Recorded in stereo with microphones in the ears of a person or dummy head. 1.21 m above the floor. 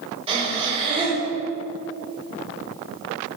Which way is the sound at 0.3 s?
25° right (ahead or behind).